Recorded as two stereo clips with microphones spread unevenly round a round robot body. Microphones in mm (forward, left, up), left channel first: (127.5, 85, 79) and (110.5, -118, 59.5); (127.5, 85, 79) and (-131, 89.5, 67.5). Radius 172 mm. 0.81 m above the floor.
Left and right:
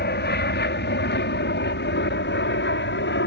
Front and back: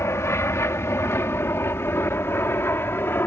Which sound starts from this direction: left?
An aircraft, at 0.0 s.